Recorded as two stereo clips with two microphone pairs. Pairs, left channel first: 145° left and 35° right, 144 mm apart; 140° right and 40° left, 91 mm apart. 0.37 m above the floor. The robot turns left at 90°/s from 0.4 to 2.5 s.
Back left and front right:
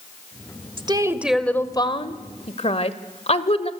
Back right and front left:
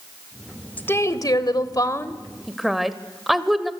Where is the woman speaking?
75° right, 1.1 m; by 3.7 s 130° left, 1.1 m.